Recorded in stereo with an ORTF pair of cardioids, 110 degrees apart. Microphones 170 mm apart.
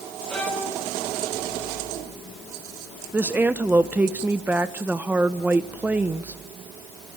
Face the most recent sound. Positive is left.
turn(degrees=-10)